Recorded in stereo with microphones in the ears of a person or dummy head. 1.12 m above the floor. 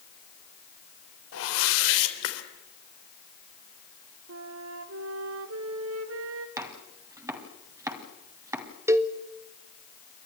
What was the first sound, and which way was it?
A whoosh, 70° left (ahead or behind).